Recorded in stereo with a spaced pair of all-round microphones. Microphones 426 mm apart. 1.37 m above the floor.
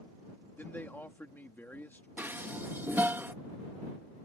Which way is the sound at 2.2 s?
5° right (ahead or behind).